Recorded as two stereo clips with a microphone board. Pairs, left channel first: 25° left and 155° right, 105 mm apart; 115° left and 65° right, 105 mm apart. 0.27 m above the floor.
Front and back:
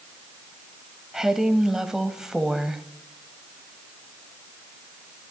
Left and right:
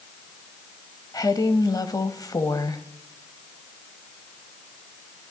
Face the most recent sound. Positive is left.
turn(degrees=120)